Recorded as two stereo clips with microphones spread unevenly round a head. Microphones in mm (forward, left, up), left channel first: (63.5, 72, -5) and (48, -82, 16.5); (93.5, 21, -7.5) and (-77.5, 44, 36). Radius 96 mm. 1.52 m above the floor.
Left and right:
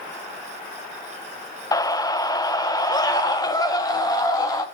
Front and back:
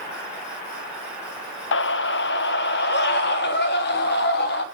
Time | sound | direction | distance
1.7 | a scream | 15° left | 0.5 m